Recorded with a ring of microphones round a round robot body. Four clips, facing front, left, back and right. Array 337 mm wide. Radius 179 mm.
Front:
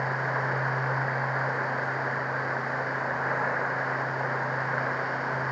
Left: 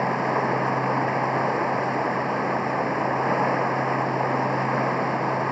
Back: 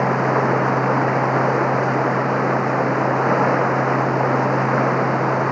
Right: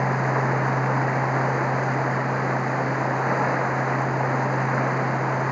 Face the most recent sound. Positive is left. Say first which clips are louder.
# even, back 11 dB
turn(degrees=175)